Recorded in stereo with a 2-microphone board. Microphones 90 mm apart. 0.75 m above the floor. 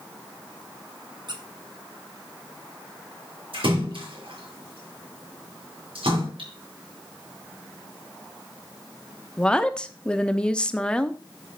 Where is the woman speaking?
10° left (ahead or behind), 0.9 m.